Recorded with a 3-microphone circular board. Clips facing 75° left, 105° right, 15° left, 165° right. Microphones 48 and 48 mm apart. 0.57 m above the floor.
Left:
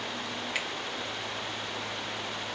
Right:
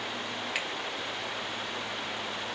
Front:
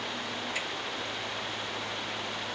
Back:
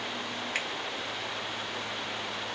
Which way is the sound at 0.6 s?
165° left.